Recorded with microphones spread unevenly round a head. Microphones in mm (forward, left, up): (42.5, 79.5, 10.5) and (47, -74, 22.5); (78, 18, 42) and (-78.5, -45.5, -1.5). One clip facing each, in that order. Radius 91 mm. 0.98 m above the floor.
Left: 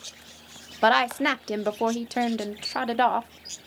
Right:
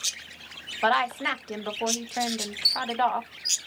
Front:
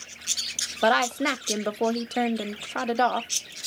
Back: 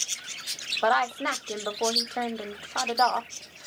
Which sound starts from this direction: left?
A woman speaking, at 0.8 s.